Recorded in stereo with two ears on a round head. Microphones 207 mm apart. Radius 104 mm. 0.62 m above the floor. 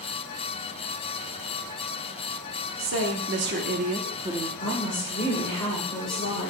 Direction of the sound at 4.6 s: 25° left (ahead or behind).